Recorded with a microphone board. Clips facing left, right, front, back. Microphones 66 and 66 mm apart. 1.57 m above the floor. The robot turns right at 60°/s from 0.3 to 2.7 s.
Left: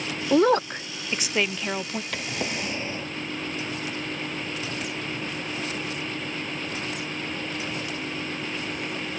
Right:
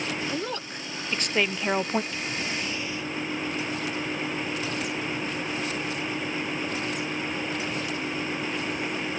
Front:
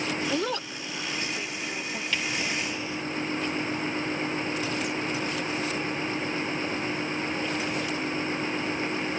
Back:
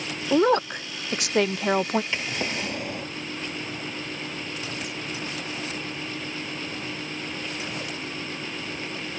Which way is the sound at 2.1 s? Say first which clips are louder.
Left 1 dB, even; 110° left.